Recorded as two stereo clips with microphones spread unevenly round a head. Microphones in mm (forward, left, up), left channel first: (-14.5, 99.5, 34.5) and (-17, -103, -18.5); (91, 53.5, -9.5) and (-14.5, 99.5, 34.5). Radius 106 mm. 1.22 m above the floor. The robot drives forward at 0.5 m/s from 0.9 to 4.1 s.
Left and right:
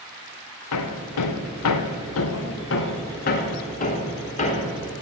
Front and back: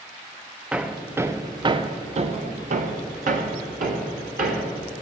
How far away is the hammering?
About 0.9 m.